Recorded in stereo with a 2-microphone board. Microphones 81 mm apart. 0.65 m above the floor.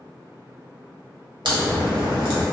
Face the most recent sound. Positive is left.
turn(degrees=-70)  # may be behind; listen again after turning